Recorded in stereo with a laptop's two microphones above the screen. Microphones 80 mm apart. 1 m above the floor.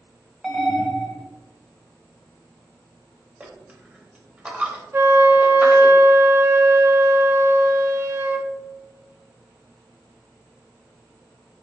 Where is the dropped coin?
15° right (ahead or behind), 0.8 m.